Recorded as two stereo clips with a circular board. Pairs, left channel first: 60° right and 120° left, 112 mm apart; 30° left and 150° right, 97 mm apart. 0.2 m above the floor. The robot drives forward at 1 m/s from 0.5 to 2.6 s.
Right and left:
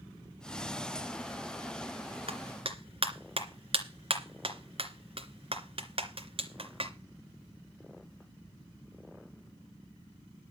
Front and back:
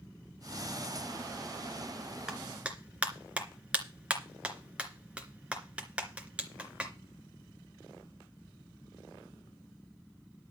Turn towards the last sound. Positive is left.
turn(degrees=135)